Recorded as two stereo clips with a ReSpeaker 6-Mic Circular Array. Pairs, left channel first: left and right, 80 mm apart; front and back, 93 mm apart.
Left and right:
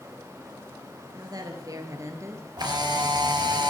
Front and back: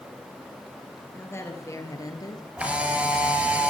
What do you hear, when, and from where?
1.1 s a woman speaking: 60° right, 2.5 m; by 2.5 s 40° right, 2.5 m
2.6 s a camera shutter: 105° right, 3.5 m